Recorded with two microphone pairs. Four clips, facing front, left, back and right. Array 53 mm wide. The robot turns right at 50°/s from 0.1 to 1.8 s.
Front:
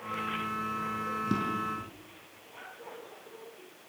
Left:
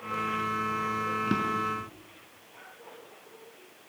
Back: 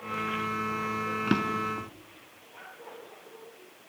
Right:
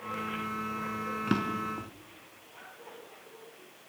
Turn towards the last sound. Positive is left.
turn(degrees=-140)